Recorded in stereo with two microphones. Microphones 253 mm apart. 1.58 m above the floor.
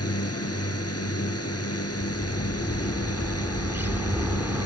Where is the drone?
70° left (ahead or behind).